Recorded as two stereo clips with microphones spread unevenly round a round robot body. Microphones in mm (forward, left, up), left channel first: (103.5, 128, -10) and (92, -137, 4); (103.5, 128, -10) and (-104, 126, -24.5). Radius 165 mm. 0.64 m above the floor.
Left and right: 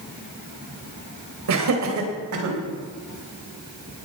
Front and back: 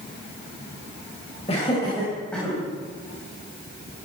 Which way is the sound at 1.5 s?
75° right.